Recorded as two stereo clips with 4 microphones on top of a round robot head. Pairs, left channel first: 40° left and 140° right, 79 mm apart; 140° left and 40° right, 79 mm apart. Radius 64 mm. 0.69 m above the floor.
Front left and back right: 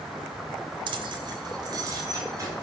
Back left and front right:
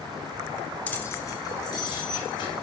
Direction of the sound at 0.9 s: 145° right.